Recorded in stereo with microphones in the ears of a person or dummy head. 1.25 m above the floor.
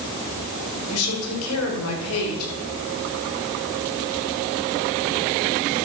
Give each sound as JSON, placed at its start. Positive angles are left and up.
{"t": 0.9, "sound": "a woman speaking", "side_deg": 90, "distance_m": 4.5}